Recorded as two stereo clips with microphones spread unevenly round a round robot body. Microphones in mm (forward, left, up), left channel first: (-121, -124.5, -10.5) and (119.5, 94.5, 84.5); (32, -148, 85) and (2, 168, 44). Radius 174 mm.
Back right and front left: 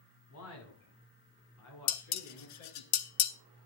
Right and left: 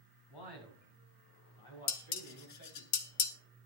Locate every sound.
0.3 s a man speaking: 95° right, 6.5 m; by 2.9 s 110° right, 9.5 m
1.9 s dishes clattering: 120° right, 1.1 m